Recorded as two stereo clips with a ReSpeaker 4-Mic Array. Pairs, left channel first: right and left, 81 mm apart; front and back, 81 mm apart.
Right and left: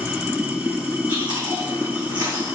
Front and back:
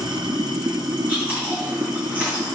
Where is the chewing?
110° left, 5.5 m.